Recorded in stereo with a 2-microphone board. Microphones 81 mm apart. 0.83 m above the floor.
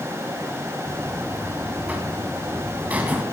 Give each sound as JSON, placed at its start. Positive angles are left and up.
{"t": 0.9, "sound": "a buzzer", "side_deg": -25, "distance_m": 2.0}